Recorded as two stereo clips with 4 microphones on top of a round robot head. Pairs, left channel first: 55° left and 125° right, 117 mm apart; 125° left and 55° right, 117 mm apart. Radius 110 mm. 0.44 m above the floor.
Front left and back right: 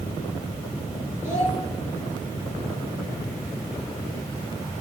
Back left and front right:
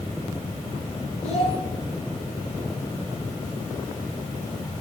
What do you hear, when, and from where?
1.2 s a child speaking: 165° left, 7 m